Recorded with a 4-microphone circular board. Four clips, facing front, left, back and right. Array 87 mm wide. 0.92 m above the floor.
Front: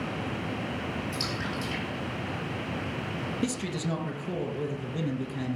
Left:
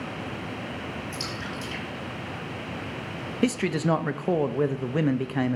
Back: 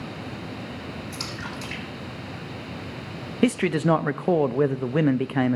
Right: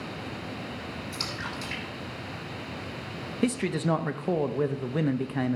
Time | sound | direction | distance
1.1 | a splash | 145° right | 6.5 m
3.4 | a man speaking | 170° left | 0.6 m